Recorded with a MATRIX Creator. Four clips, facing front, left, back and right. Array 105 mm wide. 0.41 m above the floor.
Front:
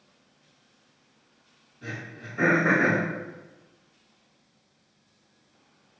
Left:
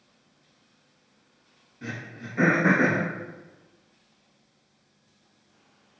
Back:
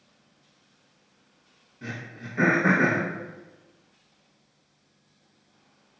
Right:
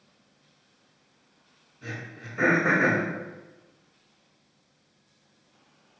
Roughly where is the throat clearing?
Behind left.